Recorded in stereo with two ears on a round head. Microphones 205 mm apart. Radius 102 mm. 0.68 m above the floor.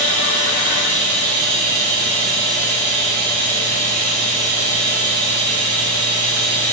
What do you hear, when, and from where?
0.0 s running water: 40° right (ahead or behind), 1.3 m